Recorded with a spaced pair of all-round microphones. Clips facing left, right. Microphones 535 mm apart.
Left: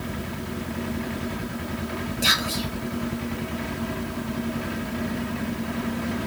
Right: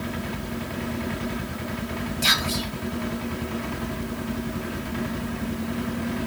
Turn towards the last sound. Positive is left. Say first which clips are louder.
# even
turn(degrees=-25)  # may be behind; listen again after turning